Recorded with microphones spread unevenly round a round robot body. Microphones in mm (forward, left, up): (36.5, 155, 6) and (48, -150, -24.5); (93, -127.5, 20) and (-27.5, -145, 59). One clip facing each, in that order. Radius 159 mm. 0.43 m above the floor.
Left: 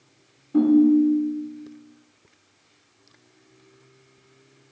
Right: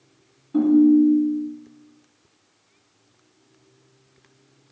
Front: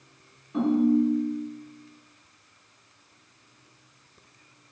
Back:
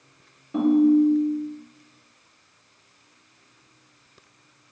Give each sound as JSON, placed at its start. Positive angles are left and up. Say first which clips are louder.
{"t": 0.5, "sound": "a ringtone", "louder": "right 1 dB, back 5 dB", "azimuth_deg": -165, "distance_m": 1.0}